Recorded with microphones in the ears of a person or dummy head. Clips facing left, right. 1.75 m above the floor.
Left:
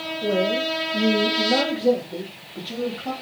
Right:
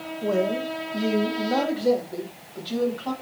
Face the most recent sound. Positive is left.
turn(degrees=20)  # may be behind; listen again after turning